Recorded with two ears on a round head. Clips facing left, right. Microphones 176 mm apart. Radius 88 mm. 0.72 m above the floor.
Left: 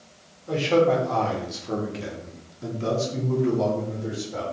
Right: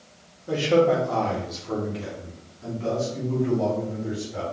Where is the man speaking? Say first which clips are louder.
Even; 15° right (ahead or behind), 1.3 m; by 4.4 s 75° left (ahead or behind), 1.8 m.